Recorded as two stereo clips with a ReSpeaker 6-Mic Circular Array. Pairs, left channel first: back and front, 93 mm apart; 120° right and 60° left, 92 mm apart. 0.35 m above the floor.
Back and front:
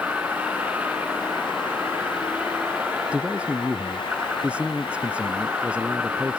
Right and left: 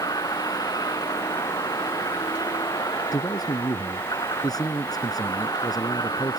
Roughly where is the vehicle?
Right.